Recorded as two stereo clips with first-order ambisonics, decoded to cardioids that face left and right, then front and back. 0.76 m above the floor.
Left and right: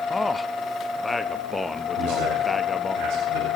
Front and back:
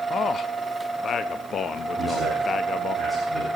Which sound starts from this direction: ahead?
A man speaking, at 0.1 s.